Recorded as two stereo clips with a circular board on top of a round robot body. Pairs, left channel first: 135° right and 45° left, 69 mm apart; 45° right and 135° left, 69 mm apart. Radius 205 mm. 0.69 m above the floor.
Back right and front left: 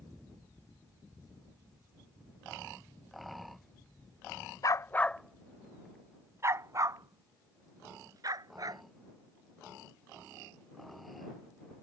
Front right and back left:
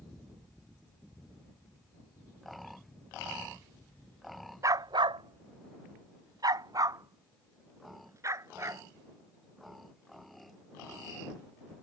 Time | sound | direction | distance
4.6 | a dog barking | straight behind | ?